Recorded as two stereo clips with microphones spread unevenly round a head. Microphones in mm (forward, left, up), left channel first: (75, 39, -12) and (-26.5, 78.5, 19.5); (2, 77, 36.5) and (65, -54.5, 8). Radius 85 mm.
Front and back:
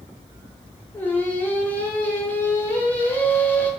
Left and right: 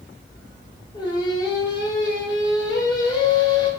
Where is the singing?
60° left, 0.7 m.